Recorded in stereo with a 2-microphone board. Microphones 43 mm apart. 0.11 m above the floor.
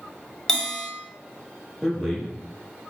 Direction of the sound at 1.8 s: 5° left (ahead or behind).